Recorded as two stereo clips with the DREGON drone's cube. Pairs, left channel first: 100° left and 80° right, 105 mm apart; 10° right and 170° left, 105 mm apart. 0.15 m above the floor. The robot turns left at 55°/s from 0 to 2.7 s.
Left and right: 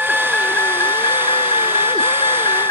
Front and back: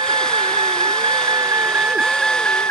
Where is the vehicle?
160° right; by 2.7 s 50° left.